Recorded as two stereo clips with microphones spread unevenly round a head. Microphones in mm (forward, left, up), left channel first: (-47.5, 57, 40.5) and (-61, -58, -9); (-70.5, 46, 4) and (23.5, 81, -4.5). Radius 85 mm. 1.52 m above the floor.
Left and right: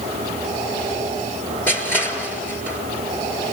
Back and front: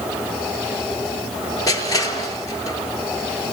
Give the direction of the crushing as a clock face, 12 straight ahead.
7 o'clock.